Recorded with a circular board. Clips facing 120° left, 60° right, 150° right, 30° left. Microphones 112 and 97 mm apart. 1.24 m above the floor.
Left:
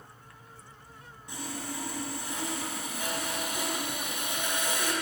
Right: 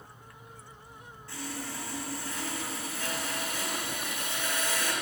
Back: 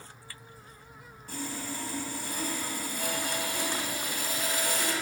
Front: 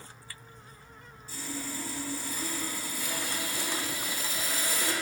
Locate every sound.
1.3 s sawing: 170° right, 2 m